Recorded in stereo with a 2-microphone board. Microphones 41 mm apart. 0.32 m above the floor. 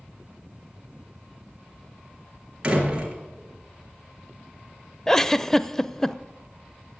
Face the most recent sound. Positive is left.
turn(degrees=15)  # may be behind; listen again after turning